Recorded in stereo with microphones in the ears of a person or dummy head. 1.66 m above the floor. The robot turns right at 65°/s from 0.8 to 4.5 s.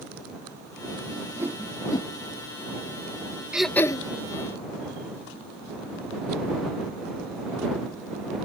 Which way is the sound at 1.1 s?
35° right (ahead or behind).